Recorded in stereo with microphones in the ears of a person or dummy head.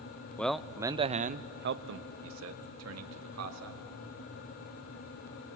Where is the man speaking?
5° left (ahead or behind), 0.7 m; by 3.8 s 85° right, 2 m.